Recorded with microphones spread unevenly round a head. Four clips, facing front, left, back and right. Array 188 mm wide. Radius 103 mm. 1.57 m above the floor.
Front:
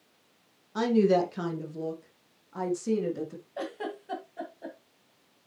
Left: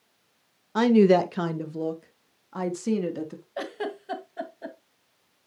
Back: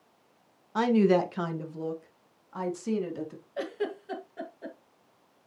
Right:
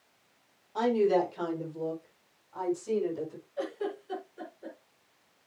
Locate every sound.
0.8 s a woman speaking: 95° left, 1.5 m; by 3.4 s 80° left, 3.5 m
3.6 s a giggle: 100° left, 1.9 m